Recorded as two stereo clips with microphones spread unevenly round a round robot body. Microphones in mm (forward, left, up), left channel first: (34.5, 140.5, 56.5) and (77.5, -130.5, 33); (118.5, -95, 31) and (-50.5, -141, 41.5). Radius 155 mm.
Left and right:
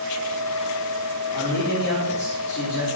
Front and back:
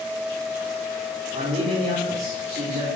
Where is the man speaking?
150° left, 3 m.